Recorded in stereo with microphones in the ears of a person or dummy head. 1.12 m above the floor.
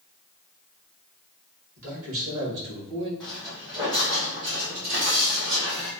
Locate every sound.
1.8 s a man speaking: 70° right (ahead or behind), 1.6 m; by 3.1 s 55° right (ahead or behind), 1.9 m
3.2 s footsteps: 10° right (ahead or behind), 1.1 m; by 5.9 s 60° right (ahead or behind), 2 m